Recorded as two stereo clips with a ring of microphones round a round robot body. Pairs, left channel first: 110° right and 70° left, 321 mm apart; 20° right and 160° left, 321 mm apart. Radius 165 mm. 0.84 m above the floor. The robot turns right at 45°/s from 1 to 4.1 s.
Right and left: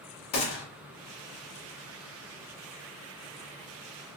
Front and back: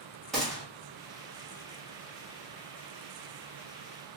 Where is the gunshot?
110° right, 1.1 m.